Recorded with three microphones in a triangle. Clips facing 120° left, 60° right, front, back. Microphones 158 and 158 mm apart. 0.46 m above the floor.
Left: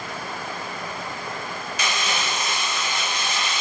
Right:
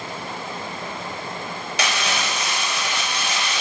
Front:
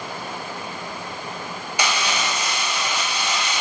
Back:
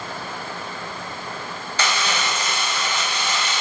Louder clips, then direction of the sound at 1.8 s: Right 2 dB, even; 75° right.